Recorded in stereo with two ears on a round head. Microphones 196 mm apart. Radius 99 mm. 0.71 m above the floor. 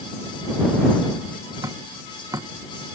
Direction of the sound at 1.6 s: 15° right (ahead or behind).